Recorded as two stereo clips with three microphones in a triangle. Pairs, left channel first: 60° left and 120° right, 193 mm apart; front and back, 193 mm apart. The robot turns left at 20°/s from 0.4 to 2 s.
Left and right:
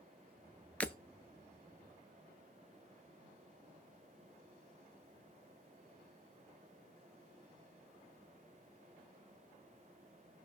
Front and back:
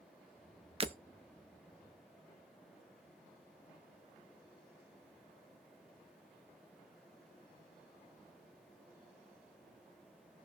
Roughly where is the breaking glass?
Behind left.